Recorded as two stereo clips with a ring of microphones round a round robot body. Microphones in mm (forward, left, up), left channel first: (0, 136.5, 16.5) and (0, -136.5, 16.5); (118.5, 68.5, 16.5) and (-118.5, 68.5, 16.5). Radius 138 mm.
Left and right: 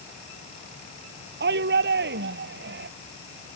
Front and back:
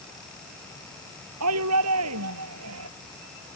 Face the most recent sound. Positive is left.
turn(degrees=-140)